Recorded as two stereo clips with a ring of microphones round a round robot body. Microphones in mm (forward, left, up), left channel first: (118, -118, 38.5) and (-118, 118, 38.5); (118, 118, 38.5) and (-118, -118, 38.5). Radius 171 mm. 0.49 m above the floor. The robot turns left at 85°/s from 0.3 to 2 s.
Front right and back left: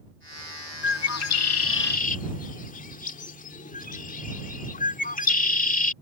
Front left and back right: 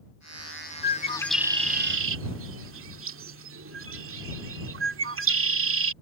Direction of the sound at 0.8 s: Straight ahead.